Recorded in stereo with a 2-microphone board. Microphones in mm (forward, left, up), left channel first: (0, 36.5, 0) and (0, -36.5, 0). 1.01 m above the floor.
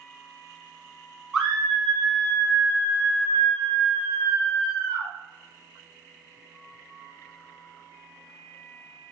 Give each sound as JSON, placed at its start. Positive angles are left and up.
{"t": 1.3, "sound": "a scream", "side_deg": -5, "distance_m": 1.4}